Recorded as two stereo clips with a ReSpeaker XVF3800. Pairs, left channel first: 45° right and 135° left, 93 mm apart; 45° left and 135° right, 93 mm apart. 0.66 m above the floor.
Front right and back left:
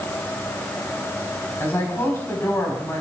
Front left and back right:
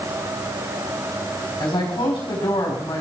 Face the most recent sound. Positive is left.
turn(degrees=15)